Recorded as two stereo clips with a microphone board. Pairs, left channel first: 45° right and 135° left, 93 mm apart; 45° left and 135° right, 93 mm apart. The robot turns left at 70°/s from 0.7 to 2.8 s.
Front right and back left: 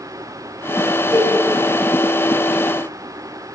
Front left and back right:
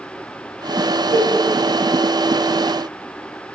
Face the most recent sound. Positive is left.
turn(degrees=90)